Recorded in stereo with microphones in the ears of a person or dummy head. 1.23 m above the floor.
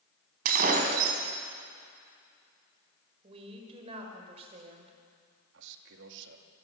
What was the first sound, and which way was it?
Breaking glass, 50° right (ahead or behind).